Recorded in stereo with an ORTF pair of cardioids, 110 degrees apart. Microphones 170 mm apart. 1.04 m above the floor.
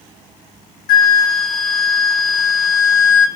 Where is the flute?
70° left, 0.9 m.